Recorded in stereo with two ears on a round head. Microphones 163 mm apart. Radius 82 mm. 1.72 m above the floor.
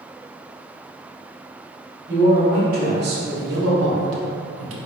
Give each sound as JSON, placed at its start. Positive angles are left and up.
{"t": 2.1, "sound": "a man speaking", "side_deg": -50, "distance_m": 1.7}